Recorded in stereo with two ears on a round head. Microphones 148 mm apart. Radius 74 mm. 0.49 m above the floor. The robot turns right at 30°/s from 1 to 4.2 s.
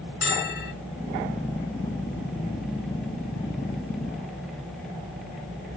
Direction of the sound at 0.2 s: 80° left.